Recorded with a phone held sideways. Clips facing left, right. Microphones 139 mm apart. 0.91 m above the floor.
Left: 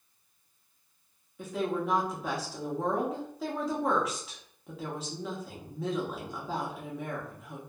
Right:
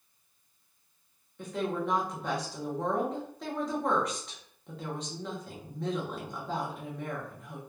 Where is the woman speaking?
5° left (ahead or behind), 0.7 m.